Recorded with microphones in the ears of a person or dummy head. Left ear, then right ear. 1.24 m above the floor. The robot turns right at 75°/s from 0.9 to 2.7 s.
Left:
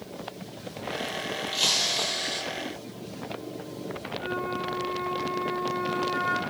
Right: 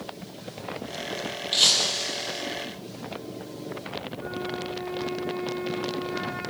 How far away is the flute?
About 9 m.